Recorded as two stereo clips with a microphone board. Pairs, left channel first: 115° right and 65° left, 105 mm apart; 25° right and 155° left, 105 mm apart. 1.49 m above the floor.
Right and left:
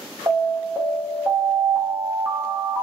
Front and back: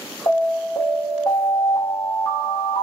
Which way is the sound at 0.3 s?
10° left.